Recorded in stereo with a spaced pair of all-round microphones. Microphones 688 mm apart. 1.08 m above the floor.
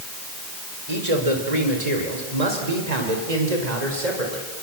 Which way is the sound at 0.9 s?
55° right (ahead or behind).